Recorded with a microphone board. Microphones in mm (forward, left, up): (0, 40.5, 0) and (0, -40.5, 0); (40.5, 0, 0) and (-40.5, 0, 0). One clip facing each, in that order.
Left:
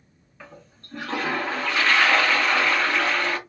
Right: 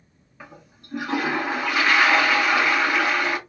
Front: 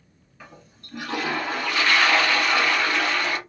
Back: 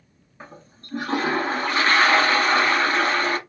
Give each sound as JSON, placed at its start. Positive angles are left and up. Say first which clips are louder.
{"t": 0.4, "sound": "a toilet flushing", "louder": "right 1 dB, back 3 dB", "azimuth_deg": -160, "distance_m": 0.6}